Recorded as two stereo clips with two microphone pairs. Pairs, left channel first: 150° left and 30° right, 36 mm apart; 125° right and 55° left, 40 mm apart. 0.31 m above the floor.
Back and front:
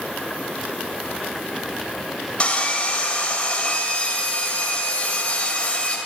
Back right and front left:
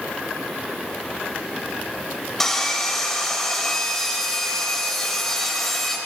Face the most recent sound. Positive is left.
turn(degrees=165)